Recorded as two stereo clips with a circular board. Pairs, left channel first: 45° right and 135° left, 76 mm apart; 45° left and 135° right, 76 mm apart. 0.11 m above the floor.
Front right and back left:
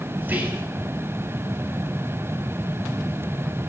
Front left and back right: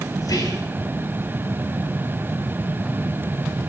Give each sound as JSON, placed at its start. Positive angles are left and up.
{"t": 0.2, "sound": "whispering", "azimuth_deg": 75, "distance_m": 1.9}